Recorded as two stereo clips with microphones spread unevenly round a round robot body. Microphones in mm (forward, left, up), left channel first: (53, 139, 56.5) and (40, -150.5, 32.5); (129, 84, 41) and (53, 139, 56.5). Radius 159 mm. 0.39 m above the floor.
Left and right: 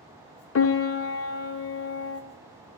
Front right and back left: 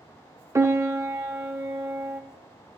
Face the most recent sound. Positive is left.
turn(degrees=80)